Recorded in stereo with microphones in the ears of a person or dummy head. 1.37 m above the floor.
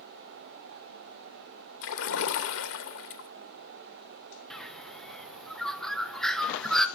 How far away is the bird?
About 0.8 m.